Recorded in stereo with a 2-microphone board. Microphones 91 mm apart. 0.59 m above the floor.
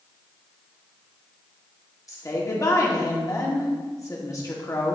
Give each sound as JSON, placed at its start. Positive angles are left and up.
{"t": 2.1, "sound": "a woman speaking", "side_deg": 35, "distance_m": 1.3}